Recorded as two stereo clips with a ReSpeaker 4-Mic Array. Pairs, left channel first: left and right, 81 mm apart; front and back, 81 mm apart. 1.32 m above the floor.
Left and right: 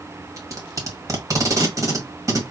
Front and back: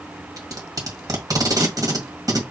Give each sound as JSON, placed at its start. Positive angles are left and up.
{"t": 0.4, "sound": "tape being pulled", "azimuth_deg": -135, "distance_m": 1.4}